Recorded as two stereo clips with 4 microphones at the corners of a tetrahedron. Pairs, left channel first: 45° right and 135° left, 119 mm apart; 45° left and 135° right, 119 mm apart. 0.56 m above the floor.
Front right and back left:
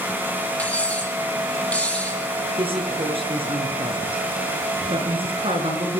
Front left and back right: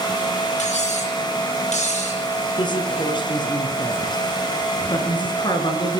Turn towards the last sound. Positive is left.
turn(degrees=95)